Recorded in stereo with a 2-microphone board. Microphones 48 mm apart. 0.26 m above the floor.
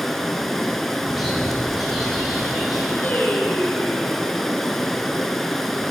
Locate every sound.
0.0 s running water: 5° left (ahead or behind), 0.7 m
1.1 s a bird: centre (ahead or behind), 3 m
3.0 s singing: 50° left (ahead or behind), 2 m